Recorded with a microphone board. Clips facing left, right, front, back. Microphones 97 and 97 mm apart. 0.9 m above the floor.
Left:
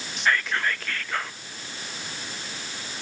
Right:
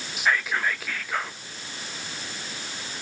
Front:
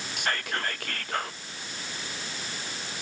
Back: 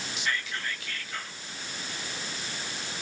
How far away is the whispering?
About 0.8 m.